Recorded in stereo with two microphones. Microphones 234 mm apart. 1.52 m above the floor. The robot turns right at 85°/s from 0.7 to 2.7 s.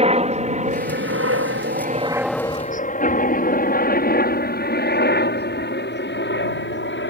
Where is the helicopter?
25° right (ahead or behind); by 7.1 s 55° left (ahead or behind).